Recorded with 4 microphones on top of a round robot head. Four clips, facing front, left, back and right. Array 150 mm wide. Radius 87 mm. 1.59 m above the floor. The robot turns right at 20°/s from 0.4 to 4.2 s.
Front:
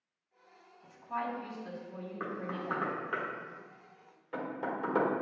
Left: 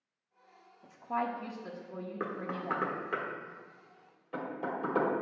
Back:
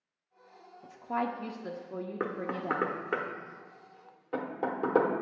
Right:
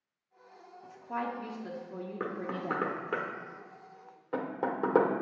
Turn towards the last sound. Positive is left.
turn(degrees=-125)